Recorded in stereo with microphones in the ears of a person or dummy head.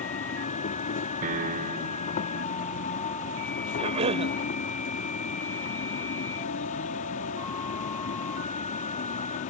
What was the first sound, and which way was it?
An insect, 40° left (ahead or behind).